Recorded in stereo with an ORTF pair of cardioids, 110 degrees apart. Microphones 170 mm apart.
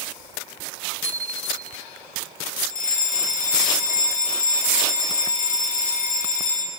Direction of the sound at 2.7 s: 50° left.